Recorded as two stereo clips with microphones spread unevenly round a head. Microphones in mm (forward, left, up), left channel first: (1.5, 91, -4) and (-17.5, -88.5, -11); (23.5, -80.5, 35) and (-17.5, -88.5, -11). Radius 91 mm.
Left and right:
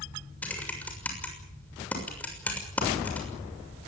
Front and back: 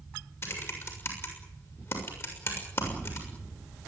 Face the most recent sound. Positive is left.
turn(degrees=0)